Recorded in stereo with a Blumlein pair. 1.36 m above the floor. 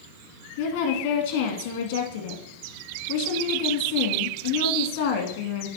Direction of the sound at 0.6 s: 50° left.